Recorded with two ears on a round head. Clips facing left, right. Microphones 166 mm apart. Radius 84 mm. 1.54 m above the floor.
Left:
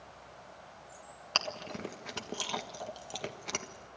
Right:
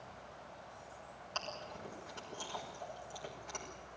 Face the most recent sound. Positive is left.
turn(degrees=80)